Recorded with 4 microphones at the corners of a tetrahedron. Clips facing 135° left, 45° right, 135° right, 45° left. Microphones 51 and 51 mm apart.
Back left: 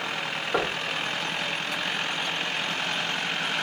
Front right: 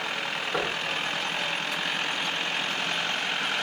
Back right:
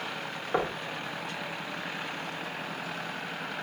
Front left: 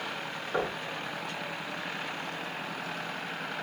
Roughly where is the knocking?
Behind.